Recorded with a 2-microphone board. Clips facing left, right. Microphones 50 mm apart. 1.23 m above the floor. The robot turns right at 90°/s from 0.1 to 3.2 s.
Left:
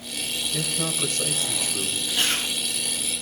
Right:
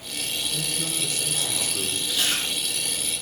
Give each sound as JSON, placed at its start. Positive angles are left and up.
{"t": 0.5, "sound": "a man speaking", "azimuth_deg": 60, "distance_m": 1.6}
{"t": 2.1, "sound": "chewing", "side_deg": 35, "distance_m": 5.5}